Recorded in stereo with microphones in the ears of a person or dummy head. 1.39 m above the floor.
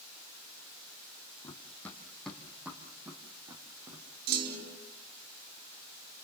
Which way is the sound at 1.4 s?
20° left (ahead or behind).